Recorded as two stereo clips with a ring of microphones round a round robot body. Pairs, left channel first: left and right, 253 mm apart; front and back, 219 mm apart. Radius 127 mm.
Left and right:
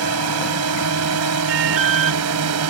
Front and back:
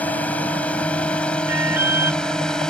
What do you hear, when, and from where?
0.0 s a drone: 85° right
1.5 s an alarm: 100° right